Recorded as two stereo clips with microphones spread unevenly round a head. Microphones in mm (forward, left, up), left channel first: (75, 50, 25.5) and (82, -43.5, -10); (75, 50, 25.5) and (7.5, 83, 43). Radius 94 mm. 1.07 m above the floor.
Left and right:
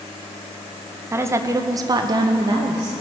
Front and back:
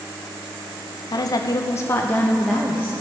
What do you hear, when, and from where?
1.1 s a woman speaking: 30° right, 0.8 m; by 2.9 s 125° right, 0.7 m